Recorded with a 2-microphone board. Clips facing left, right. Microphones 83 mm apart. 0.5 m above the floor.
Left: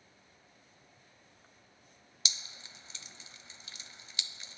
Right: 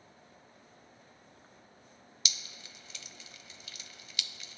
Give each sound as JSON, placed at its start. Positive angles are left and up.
{"t": 2.2, "sound": "dripping", "side_deg": 30}